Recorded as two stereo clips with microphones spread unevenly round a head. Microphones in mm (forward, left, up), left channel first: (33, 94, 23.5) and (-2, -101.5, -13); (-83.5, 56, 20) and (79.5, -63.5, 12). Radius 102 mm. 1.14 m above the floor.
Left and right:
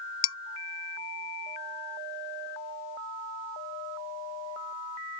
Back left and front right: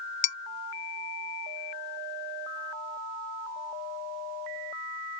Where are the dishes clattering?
90° left.